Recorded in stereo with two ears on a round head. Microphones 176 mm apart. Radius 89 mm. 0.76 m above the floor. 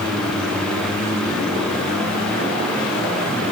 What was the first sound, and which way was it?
Only background noise.